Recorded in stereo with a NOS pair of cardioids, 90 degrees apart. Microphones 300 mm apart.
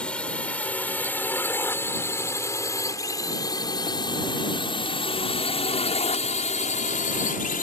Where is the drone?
5° left; by 7.6 s 30° left.